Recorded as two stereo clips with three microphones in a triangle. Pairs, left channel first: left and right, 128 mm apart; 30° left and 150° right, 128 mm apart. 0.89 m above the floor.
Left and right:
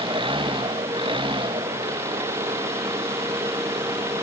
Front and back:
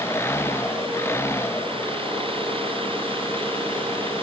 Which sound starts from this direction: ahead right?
An engine running, at 0.0 s.